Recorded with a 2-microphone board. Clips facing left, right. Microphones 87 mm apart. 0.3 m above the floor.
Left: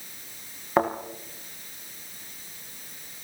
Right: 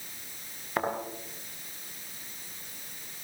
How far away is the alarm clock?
I don't hear an alarm clock.